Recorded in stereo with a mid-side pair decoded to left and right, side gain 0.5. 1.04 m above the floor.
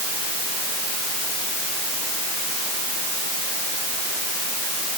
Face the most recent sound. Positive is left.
No sound to turn to.